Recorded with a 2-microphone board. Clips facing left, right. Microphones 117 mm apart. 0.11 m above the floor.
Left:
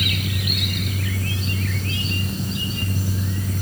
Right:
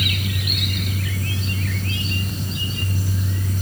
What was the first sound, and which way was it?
Only background noise.